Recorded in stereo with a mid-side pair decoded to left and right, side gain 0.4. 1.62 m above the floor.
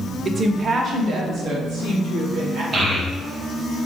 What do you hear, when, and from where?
0.2 s a woman speaking: 40° right, 0.7 m; by 2.6 s 75° right, 2 m
2.7 s a child speaking: 40° right, 1.6 m